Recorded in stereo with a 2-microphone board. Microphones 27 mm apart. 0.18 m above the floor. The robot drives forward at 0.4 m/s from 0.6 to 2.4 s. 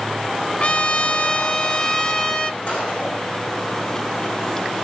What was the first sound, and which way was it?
A trumpet, 40° left (ahead or behind).